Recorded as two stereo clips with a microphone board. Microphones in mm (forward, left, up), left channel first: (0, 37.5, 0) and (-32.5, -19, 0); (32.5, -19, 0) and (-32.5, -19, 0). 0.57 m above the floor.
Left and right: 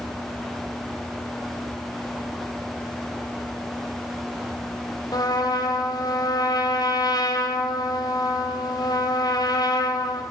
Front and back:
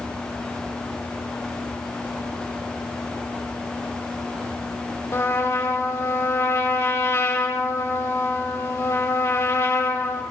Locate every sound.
5.1 s a trumpet: 45° left, 2.5 m